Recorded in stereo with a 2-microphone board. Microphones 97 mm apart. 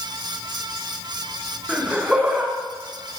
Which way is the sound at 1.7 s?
10° right (ahead or behind).